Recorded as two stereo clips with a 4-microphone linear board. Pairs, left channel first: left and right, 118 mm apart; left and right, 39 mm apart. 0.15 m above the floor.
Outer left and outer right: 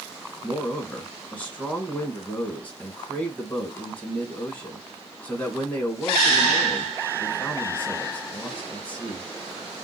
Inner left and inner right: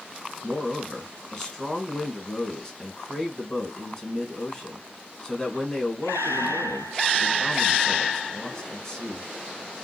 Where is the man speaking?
15° left (ahead or behind), 1.6 m.